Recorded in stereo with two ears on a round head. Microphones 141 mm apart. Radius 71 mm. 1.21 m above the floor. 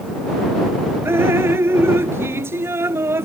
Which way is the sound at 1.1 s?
15° right (ahead or behind).